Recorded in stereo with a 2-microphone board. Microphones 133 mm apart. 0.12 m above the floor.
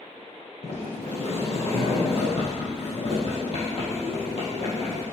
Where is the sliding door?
55° left (ahead or behind), 2.5 m.